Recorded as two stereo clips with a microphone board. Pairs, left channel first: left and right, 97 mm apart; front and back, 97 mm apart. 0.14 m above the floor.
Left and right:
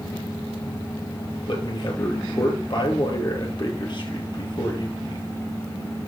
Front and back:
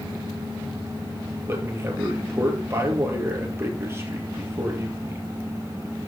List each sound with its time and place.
1.5 s a man speaking: 120° left, 2.5 m